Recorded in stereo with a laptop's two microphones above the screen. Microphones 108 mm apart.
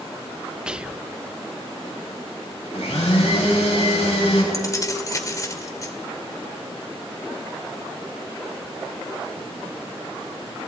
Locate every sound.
0.7 s whispering: 10° right (ahead or behind), 0.7 m
2.7 s a blender: 80° left, 7 m
4.5 s keys jangling: 30° left (ahead or behind), 2.5 m